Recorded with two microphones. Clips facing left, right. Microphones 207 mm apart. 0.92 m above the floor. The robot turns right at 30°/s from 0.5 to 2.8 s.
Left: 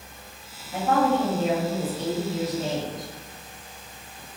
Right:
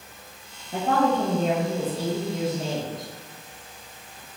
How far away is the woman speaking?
About 0.7 m.